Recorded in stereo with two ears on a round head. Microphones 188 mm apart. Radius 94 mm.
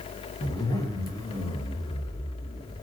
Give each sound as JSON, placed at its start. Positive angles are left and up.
{"t": 0.4, "sound": "a zipper", "side_deg": 20, "distance_m": 0.6}